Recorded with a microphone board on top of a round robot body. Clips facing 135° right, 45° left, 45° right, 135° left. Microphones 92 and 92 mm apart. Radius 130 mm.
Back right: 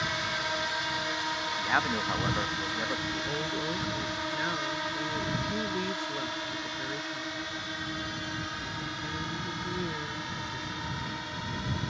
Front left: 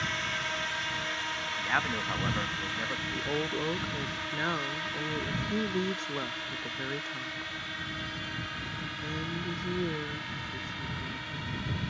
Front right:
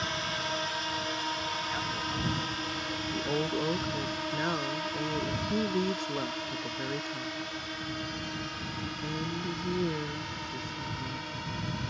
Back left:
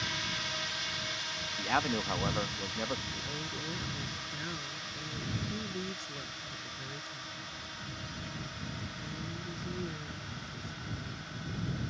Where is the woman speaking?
20° right.